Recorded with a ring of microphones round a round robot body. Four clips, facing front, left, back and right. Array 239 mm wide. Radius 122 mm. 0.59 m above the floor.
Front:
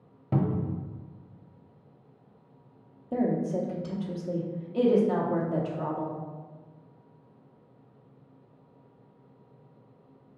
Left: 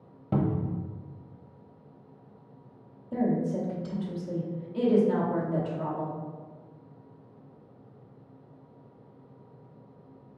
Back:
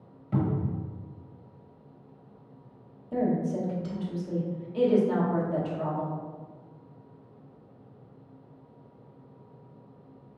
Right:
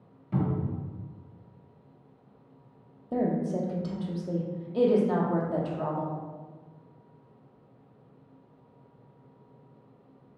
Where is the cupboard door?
50° left, 0.6 m.